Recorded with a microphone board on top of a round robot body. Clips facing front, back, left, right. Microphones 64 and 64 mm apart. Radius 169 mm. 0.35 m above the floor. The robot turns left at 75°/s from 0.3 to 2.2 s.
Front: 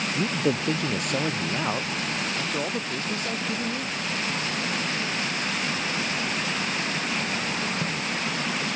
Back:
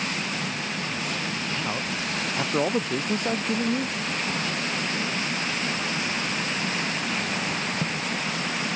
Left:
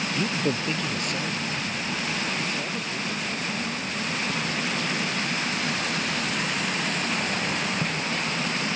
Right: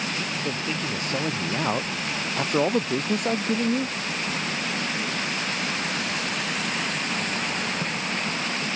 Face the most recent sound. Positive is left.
turn(degrees=-115)